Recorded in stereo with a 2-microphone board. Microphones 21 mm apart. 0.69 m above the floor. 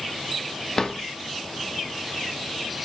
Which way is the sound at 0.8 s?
30° left (ahead or behind).